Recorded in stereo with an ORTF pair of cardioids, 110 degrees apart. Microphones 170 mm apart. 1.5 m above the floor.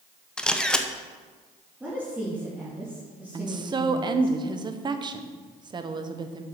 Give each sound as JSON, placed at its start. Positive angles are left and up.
{"t": 0.4, "sound": "a camera shutter", "azimuth_deg": 5, "distance_m": 0.9}
{"t": 1.8, "sound": "a woman speaking", "azimuth_deg": -10, "distance_m": 2.5}
{"t": 3.3, "sound": "a woman speaking", "azimuth_deg": -30, "distance_m": 1.0}